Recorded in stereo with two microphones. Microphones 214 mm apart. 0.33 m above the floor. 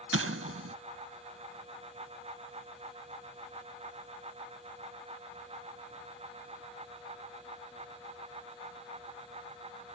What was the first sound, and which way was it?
An explosion, 75° right (ahead or behind).